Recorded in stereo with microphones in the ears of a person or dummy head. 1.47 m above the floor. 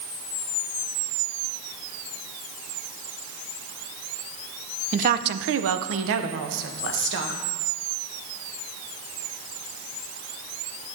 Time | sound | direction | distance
4.9 | a woman speaking | 40° right (ahead or behind) | 0.5 m